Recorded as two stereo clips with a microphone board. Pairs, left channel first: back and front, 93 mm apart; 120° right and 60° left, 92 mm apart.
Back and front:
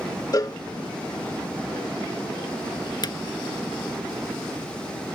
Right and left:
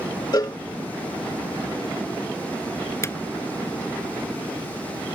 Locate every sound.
0.3 s a cowbell: 150° right
3.0 s a drawer: 170° right